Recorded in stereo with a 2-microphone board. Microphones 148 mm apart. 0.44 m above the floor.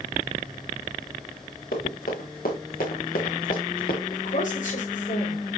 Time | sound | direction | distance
1.7 | running footsteps | 80° left | 5.5 m
4.1 | a woman speaking | 60° left (ahead or behind) | 8 m